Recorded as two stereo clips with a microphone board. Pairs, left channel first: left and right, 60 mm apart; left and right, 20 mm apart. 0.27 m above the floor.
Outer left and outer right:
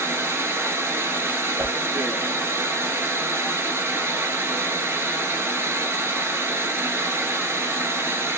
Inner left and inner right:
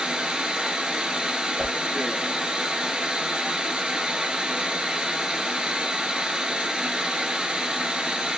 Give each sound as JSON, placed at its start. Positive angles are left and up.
{"t": 0.0, "sound": "running water", "side_deg": -45, "distance_m": 1.0}
{"t": 1.6, "sound": "a whoosh", "side_deg": -30, "distance_m": 1.5}